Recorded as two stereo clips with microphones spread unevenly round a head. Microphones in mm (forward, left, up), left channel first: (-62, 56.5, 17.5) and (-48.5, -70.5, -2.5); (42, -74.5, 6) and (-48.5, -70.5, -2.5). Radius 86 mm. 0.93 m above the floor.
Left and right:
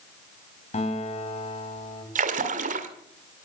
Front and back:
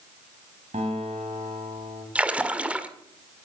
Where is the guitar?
130° left, 3.5 m.